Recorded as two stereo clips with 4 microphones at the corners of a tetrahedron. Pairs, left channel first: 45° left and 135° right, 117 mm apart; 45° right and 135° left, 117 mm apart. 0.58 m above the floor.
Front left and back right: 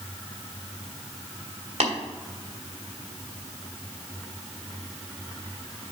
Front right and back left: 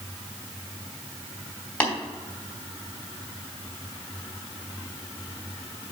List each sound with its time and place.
1.8 s tapping: 120° right, 2.5 m